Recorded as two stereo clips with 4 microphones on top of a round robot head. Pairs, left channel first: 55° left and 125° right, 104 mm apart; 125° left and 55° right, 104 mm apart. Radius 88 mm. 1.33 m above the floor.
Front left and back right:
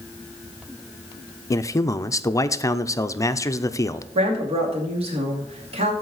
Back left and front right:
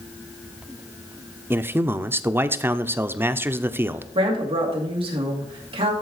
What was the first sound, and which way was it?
A man speaking, 5° left.